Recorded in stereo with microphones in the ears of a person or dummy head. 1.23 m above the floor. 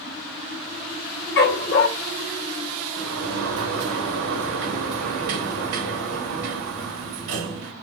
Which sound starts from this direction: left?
A dog barking, at 1.4 s.